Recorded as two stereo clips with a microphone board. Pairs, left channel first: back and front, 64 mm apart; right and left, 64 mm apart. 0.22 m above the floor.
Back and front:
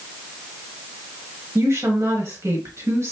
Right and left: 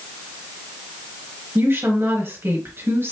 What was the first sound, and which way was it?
A woman speaking, 45° left.